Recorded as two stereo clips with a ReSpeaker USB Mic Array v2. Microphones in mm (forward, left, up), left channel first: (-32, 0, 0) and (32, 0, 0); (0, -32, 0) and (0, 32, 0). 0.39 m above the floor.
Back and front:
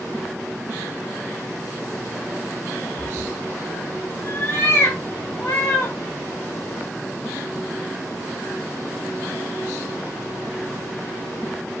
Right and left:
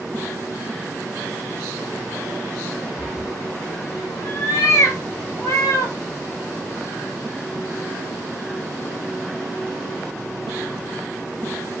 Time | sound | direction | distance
3.0 | a cat meowing | 160° right | 0.7 m